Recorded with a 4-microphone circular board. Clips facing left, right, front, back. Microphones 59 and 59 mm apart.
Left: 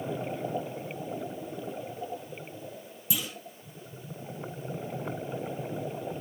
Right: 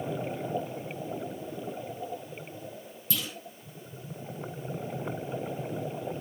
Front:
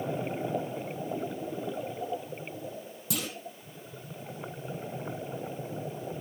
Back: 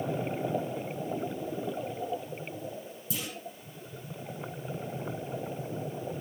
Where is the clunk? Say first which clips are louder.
Even, front 3 dB; 15° left, 4.5 m.